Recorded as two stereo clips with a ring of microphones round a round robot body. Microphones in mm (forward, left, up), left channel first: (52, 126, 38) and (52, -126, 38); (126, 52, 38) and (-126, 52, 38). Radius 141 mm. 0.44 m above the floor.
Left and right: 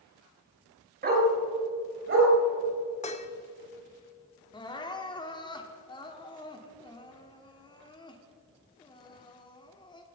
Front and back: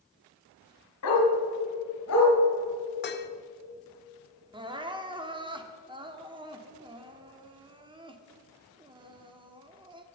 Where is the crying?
135° left, 1.2 m.